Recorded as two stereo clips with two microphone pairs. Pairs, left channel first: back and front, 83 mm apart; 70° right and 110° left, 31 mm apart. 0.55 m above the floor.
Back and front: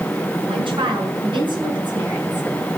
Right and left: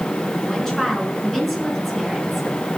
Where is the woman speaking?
10° left, 6.5 m; by 2.5 s 25° left, 7 m.